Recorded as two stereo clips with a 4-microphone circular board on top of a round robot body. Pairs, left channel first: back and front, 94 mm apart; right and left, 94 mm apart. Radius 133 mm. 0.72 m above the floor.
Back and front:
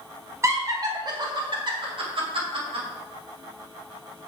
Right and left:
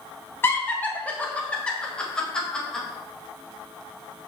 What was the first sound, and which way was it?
Laughter, 40° right.